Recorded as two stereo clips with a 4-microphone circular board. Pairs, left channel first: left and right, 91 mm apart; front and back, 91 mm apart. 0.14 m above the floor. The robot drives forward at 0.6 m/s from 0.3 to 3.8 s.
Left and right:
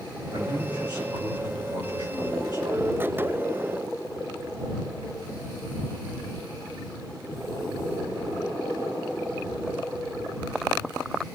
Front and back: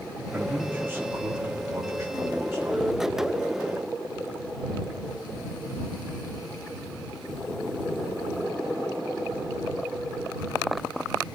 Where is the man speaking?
115° right, 6 m; by 2.9 s 125° right, 7 m.